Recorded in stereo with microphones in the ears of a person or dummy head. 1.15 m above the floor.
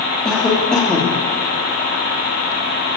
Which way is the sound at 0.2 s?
Centre (ahead or behind).